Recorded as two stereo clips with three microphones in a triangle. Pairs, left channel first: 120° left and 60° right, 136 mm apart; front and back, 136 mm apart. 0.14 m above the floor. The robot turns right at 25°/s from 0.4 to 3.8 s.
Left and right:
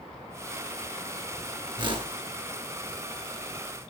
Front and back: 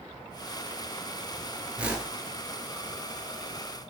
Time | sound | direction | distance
1.8 | a whoosh | 100° right | 1.4 m